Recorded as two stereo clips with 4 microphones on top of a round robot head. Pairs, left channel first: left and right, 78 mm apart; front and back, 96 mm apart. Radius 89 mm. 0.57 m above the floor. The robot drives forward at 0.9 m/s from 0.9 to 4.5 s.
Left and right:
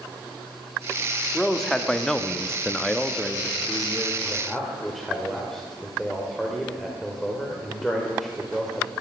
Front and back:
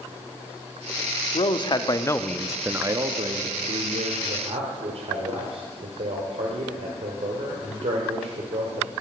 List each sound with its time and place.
1.3 s a man speaking: 5° left, 1.2 m; by 8.9 s straight behind, 1.9 m